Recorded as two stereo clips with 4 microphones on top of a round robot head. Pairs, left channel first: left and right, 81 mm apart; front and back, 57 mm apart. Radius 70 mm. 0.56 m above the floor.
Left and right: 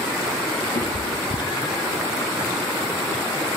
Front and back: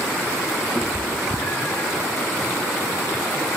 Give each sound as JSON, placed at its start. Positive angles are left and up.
{"t": 0.8, "sound": "a cat meowing", "azimuth_deg": 80, "distance_m": 4.5}